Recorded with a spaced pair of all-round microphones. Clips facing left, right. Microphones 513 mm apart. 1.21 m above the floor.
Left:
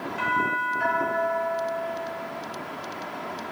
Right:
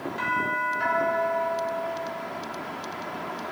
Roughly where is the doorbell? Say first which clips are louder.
Left 1 dB; right.